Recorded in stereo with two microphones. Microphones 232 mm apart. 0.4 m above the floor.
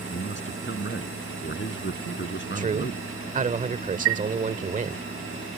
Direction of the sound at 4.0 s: 70° right (ahead or behind).